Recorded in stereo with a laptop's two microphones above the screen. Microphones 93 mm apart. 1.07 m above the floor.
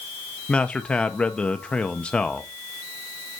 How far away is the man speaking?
About 0.7 m.